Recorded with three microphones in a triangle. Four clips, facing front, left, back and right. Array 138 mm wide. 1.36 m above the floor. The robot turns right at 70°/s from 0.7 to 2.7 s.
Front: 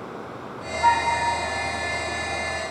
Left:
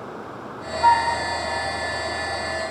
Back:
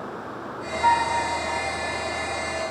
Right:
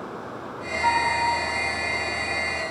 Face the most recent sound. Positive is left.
turn(degrees=-170)